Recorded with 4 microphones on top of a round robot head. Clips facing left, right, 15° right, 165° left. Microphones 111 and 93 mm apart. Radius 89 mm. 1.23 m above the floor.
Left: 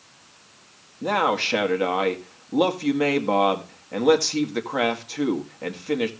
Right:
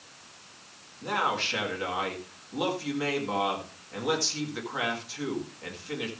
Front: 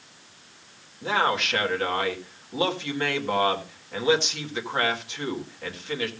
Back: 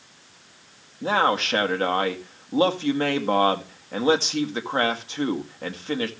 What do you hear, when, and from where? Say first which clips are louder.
1.0 s a man speaking: left 7 dB, back 3 dB; 115° left, 1.9 m